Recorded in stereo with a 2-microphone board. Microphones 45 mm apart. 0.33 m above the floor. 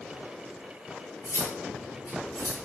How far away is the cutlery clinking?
About 4.5 m.